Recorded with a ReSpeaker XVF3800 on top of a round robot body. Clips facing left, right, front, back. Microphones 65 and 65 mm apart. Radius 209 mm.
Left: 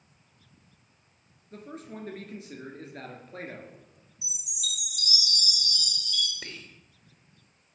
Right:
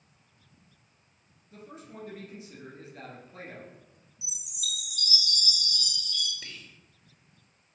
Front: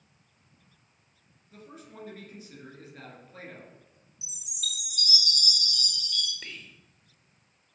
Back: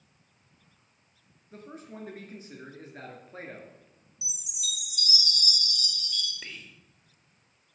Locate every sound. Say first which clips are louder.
1.5 s a man speaking: left 4 dB, back 3 dB; 130° left, 1.9 m
4.2 s a chime: left 1 dB, front 2 dB; 115° right, 0.5 m
6.4 s whispering: left 3 dB, even; 95° left, 0.7 m